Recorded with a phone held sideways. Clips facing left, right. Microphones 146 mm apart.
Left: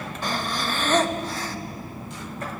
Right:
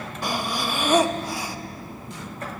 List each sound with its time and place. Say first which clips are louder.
0.2 s breathing: right 1 dB; 10° right (ahead or behind), 1.0 m